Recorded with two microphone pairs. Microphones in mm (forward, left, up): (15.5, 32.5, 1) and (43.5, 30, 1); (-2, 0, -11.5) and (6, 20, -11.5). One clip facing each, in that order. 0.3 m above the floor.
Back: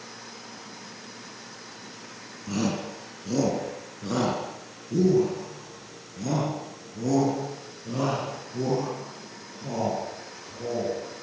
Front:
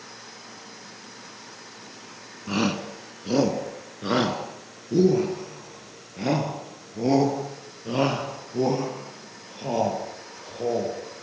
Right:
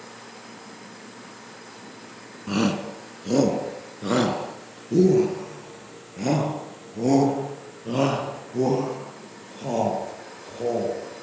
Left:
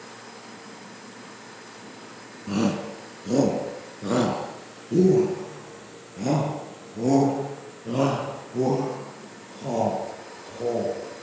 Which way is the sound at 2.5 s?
50° right.